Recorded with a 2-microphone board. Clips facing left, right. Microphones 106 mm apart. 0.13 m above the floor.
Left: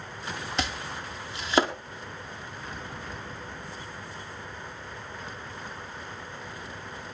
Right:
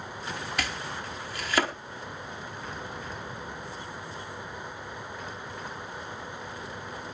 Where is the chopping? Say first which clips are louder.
Left 1 dB; 25° left (ahead or behind), 1.6 m.